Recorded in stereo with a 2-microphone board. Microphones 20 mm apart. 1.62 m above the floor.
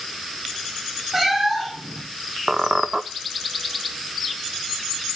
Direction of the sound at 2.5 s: 35° right (ahead or behind).